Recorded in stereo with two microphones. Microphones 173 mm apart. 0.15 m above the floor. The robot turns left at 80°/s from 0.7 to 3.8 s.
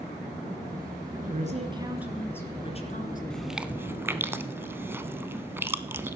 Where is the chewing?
5° left (ahead or behind), 0.6 m; by 6.2 s 15° right (ahead or behind), 0.6 m.